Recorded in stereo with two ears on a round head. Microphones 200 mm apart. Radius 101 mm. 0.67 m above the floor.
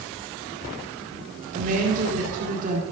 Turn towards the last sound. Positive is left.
turn(degrees=-35)  # may be behind; listen again after turning